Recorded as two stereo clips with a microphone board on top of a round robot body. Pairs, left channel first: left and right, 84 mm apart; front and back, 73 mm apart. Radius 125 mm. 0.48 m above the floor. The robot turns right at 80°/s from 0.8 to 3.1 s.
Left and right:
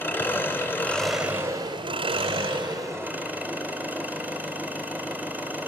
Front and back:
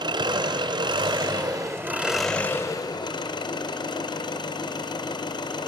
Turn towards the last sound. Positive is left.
turn(degrees=-20)